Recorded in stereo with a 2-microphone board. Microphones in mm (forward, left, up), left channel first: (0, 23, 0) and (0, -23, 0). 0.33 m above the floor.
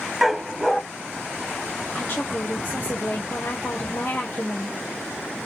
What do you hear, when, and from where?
0.2 s a dog barking: 5° right (ahead or behind), 0.7 m
1.9 s a woman speaking: 40° left (ahead or behind), 1.2 m